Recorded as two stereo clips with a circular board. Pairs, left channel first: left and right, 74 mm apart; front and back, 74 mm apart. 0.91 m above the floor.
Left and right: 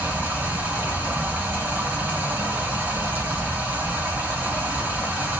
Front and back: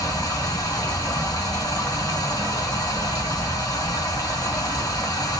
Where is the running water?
25° right, 2.5 m.